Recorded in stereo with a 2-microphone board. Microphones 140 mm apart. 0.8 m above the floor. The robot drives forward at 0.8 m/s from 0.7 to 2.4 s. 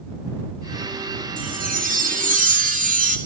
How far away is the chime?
About 3 m.